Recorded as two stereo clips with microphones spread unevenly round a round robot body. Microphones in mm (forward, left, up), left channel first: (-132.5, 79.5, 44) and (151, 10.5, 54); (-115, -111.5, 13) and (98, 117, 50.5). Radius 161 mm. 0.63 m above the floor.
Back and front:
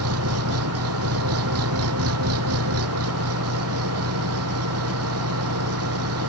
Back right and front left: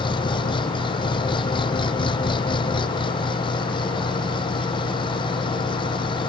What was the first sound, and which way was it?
An engine running, 60° right.